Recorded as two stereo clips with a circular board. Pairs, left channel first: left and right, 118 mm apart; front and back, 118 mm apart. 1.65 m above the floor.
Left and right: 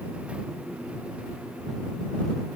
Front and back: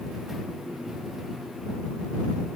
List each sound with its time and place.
Only background noise.